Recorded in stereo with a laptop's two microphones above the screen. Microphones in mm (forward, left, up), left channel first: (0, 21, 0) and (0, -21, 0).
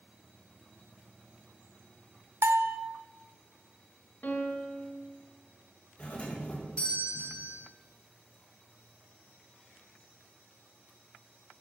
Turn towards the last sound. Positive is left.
turn(degrees=25)  # may be behind; listen again after turning